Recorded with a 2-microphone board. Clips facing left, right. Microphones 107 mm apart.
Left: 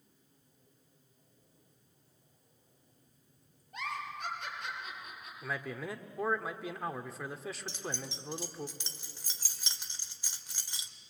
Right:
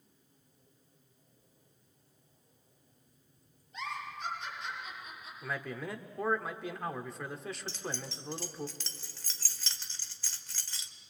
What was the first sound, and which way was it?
A giggle, 55° left (ahead or behind).